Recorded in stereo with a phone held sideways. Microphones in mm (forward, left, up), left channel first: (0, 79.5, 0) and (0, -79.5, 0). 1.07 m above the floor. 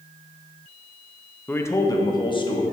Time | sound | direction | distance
1.5 | a man speaking | 10° left (ahead or behind) | 0.9 m